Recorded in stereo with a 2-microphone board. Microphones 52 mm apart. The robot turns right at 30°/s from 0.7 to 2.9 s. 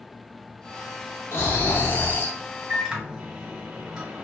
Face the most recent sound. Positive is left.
turn(degrees=-15)  # may be behind; listen again after turning